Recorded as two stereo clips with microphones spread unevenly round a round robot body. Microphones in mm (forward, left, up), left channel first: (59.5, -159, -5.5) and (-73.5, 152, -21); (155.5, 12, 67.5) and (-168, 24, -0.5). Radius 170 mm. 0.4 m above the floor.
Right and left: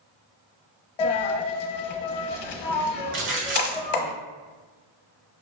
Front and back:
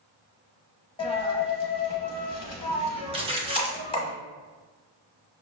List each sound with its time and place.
1.0 s a dropped coin: 75° right, 0.8 m
3.1 s a splash: 135° left, 0.9 m